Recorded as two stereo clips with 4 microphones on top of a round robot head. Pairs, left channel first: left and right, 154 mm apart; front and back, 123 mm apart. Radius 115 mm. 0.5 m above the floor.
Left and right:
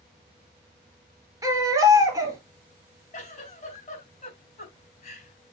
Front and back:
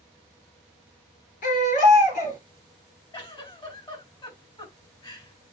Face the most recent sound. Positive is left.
turn(degrees=50)